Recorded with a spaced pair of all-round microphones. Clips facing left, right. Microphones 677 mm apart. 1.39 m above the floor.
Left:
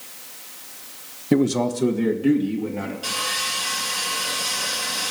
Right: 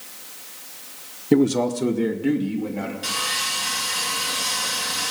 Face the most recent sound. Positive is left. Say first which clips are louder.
# left 1 dB
turn(degrees=-50)  # may be behind; listen again after turning